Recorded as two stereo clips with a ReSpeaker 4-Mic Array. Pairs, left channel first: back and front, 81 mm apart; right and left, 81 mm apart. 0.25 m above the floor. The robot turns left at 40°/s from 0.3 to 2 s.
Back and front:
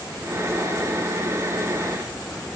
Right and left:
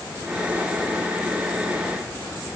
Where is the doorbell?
I don't hear a doorbell.